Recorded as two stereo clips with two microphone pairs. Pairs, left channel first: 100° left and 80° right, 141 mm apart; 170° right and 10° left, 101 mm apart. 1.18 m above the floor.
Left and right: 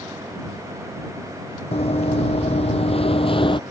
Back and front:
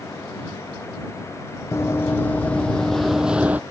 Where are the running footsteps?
135° left; by 3.6 s 75° left.